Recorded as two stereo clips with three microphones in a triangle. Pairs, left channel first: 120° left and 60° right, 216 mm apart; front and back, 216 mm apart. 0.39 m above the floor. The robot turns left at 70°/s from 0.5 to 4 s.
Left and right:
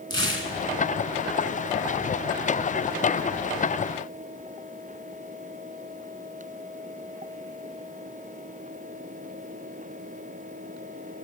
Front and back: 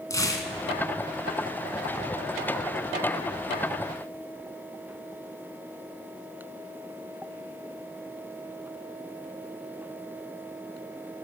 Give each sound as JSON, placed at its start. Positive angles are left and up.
{"t": 0.1, "sound": "tearing paper", "azimuth_deg": -75, "distance_m": 1.8}